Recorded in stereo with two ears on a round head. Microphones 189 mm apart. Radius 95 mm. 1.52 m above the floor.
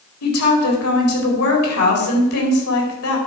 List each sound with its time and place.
0.2 s a woman speaking: 85° left, 4.5 m